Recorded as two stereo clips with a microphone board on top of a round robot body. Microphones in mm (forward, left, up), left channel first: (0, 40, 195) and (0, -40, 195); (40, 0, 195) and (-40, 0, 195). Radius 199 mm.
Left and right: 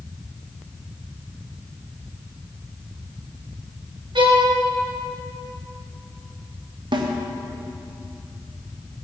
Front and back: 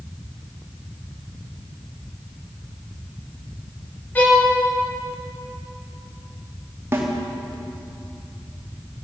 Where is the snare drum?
115° right, 1.6 m.